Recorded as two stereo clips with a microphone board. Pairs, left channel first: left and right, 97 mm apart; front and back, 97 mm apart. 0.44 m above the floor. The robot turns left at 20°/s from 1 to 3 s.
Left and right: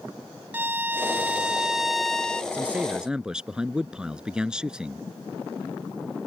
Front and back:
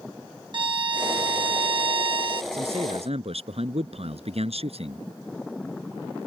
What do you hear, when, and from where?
0.5 s a violin: 160° right; by 2.4 s 170° left
2.5 s a man speaking: 165° right; by 5.0 s 170° right